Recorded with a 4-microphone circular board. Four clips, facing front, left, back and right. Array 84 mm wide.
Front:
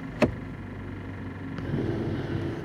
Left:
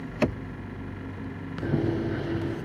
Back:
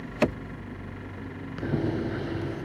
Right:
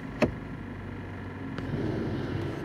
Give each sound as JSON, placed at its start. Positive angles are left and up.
{"t": 1.6, "sound": "running footsteps", "azimuth_deg": 130, "distance_m": 7.0}